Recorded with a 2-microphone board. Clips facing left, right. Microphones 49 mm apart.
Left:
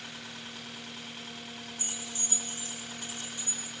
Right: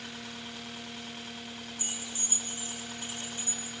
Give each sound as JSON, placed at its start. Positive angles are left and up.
{"t": 1.8, "sound": "keys jangling", "side_deg": -30, "distance_m": 7.5}